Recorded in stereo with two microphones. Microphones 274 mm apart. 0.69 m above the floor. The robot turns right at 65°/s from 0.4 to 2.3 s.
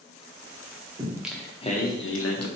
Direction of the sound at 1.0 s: 20° right.